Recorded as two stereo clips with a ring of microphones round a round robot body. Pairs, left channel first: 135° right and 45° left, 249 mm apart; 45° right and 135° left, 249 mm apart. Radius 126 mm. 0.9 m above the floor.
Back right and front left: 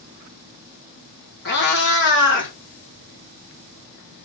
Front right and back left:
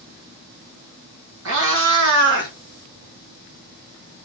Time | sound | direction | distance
1.4 | a cat meowing | 175° left | 3 m